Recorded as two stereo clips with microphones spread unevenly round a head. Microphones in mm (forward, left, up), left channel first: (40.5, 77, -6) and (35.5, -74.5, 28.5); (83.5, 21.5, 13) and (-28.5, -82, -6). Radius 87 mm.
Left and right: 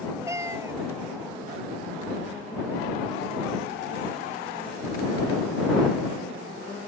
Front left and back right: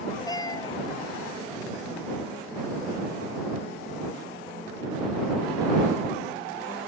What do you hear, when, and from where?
0.3 s a cat meowing: 20° right